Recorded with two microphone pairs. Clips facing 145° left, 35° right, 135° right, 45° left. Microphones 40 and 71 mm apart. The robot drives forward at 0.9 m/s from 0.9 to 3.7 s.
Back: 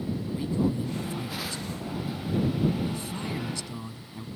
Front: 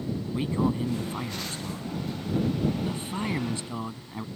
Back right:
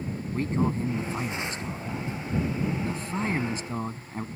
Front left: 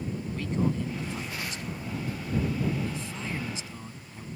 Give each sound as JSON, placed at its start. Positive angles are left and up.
{"t": 0.3, "sound": "a man speaking", "azimuth_deg": -75}